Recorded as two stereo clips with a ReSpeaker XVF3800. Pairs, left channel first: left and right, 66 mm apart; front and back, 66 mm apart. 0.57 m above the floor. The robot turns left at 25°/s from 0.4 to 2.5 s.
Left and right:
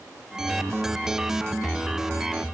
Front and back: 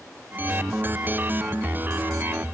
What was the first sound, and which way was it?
Only background noise.